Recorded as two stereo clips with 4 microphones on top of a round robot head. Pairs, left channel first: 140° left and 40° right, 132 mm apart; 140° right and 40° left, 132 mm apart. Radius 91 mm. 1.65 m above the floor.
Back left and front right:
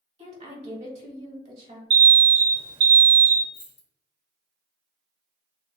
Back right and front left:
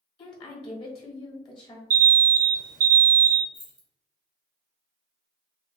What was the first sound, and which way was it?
A woman speaking, 90° right.